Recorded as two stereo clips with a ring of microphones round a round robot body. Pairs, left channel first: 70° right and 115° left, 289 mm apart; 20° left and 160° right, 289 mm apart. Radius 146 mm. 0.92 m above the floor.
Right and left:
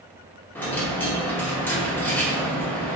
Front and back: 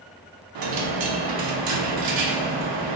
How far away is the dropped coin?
About 0.8 m.